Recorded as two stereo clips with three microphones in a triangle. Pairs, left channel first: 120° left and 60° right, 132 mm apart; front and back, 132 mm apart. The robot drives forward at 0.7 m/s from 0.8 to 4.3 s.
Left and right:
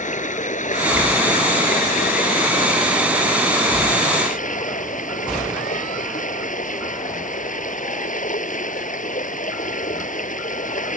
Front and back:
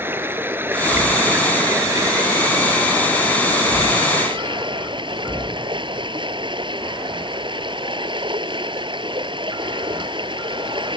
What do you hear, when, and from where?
0.0 s running water: 105° left; by 11.0 s 130° left